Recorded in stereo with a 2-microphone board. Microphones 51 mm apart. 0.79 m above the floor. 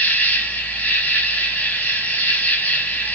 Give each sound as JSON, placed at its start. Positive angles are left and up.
{"t": 0.0, "sound": "an insect", "side_deg": 30, "distance_m": 0.8}